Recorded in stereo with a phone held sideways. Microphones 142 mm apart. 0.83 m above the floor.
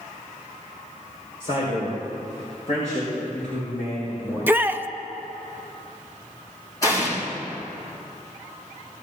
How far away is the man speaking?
About 3.5 m.